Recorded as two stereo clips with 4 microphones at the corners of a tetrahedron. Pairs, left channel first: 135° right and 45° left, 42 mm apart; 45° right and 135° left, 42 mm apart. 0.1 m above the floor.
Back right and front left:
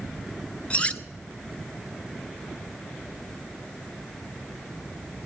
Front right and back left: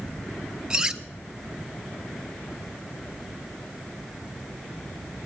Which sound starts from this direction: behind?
Cutlery clinking, at 0.7 s.